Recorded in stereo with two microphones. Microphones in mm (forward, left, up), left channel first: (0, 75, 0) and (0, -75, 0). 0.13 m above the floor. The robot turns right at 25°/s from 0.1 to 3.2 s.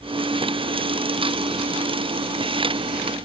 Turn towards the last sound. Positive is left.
No sound to turn to.